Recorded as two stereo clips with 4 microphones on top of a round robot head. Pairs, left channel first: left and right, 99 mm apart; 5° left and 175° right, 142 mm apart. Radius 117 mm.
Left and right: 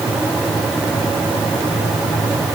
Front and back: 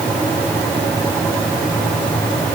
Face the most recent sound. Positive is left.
No sound to turn to.